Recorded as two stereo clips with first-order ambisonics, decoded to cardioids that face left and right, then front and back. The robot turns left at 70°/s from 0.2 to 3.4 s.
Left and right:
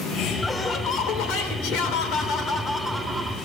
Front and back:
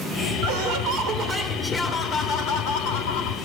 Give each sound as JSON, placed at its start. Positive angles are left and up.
{"t": 0.4, "sound": "laughter", "azimuth_deg": 175, "distance_m": 3.0}